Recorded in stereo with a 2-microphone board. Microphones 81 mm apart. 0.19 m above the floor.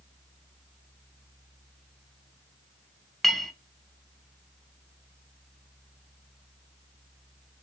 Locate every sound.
3.2 s a clink: 5° left (ahead or behind), 0.7 m